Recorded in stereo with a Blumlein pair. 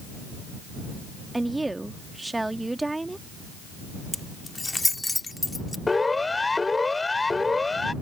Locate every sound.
1.3 s a woman speaking: 5° right
4.1 s keys jangling: 5° left
5.9 s a siren: 10° left